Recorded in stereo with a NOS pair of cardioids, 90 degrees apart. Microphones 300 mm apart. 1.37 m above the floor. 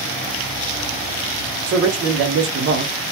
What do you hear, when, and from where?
1.7 s a man speaking: 60° right, 1.4 m; by 3.0 s 35° right, 1.0 m